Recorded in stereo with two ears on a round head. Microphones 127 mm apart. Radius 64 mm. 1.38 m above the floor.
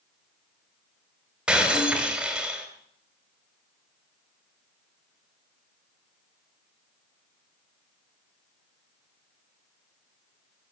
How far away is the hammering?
No hammering in this recording.